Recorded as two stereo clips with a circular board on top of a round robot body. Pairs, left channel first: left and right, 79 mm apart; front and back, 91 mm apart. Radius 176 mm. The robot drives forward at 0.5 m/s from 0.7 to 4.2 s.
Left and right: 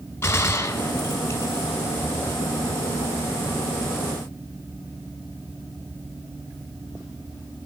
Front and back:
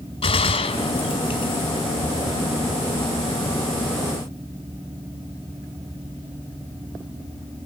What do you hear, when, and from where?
0.2 s a gunshot: 25° left, 1.7 m; by 1.7 s 35° left, 1.3 m